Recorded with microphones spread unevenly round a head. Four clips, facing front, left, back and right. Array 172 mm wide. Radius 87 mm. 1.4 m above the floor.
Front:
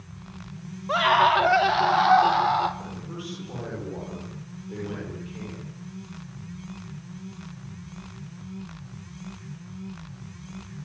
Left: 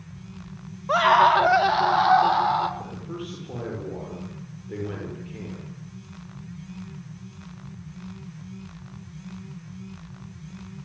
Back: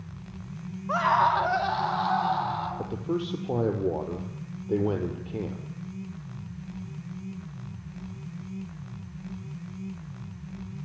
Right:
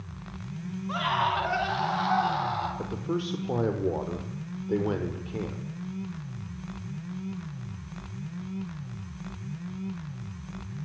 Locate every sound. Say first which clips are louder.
0.9 s a scream: left 11 dB, front 3 dB; 60° left, 2 m; by 2.7 s 35° left, 4.5 m
2.8 s a man speaking: right 4 dB, back 7 dB; 145° right, 6 m